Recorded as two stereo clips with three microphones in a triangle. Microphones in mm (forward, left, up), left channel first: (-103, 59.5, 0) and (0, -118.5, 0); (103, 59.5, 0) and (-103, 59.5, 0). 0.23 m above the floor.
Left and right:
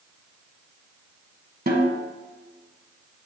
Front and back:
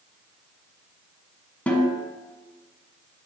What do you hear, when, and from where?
1.7 s a snare drum: 80° right, 1.5 m